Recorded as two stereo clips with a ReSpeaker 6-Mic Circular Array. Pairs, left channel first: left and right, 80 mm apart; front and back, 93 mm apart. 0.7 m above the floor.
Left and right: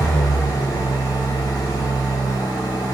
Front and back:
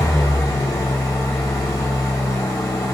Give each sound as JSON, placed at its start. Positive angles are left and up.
{"t": 0.0, "sound": "an engine running", "azimuth_deg": 50, "distance_m": 1.8}